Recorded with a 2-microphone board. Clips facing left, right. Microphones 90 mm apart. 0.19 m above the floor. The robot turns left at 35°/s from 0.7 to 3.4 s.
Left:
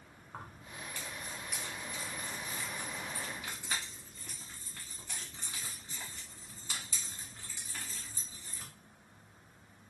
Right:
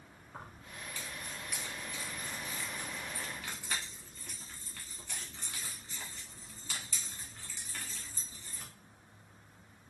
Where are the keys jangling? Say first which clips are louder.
Left 1 dB; 45° left (ahead or behind), 1.5 m; by 8.7 s 15° left (ahead or behind), 1.5 m.